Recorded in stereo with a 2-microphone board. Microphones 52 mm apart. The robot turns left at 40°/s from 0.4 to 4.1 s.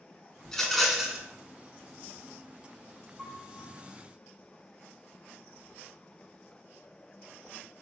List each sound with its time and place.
0.5 s a rattle: 15° left, 0.7 m; by 1.2 s 15° right, 0.7 m
3.2 s a piano: 5° right (ahead or behind), 1.8 m; by 3.8 s 10° left (ahead or behind), 1.8 m